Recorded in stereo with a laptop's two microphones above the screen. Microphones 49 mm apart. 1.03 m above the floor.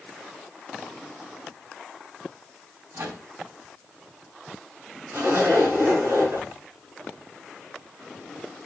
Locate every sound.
2.9 s a microwave: 55° right (ahead or behind), 5 m
5.1 s a zipper: 60° right (ahead or behind), 7 m